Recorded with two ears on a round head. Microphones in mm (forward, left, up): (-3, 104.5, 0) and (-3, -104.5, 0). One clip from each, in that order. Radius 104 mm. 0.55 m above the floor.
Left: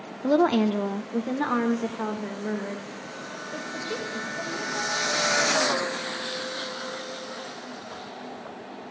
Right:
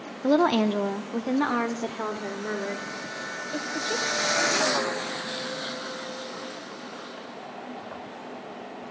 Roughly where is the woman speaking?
Centre.